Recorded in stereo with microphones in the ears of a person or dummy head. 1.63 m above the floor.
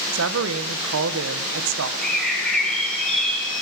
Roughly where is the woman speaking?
Right.